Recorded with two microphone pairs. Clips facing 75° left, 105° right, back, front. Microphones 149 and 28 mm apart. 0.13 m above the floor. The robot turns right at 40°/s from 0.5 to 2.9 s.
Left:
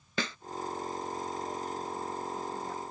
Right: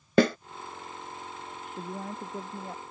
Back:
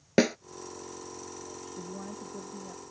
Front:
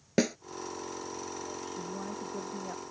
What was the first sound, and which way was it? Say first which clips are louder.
A snare drum: right 15 dB, back 4 dB; 120° right.